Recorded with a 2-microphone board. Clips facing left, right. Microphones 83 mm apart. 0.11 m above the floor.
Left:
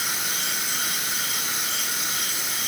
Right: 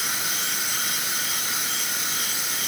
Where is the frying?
I don't hear frying.